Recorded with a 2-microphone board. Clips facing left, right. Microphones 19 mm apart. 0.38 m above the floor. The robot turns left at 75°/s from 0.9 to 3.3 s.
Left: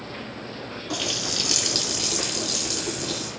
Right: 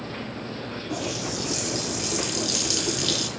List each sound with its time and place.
0.9 s a running tap: 115° left, 3 m; by 3.3 s 65° right, 3 m